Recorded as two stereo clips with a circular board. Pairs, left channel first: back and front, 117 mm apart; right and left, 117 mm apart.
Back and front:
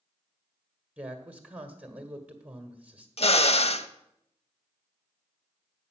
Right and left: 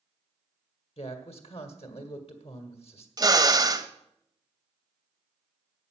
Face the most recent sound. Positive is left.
turn(degrees=145)